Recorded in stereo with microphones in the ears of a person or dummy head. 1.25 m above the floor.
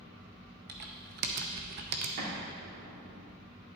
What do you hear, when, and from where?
0.7 s typing on a keyboard: 55° right (ahead or behind), 0.7 m
2.2 s an explosion: 50° right (ahead or behind), 3 m